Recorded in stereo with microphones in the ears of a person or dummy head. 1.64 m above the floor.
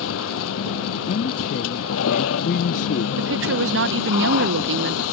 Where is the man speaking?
45° left (ahead or behind).